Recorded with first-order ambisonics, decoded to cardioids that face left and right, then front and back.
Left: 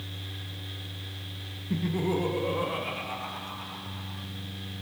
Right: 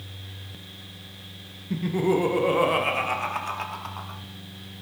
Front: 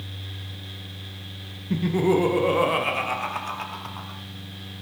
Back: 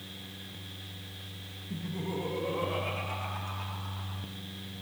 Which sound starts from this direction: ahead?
Laughter, at 1.7 s.